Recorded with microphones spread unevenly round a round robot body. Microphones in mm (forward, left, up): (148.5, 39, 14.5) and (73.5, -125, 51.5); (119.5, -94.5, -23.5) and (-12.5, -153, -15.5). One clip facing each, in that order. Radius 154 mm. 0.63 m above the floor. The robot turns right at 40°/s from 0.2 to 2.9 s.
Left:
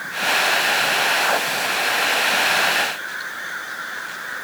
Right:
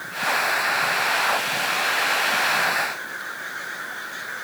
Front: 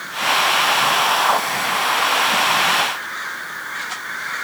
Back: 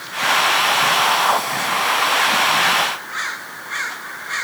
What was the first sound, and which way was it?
Only background noise.